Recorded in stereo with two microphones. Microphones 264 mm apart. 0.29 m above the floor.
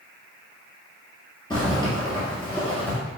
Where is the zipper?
15° left (ahead or behind), 1.4 m.